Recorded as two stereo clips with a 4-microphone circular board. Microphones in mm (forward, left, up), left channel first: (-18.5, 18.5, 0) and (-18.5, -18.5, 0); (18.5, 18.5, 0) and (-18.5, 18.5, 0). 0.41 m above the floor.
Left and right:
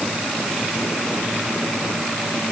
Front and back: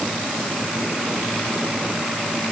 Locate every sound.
Only background noise.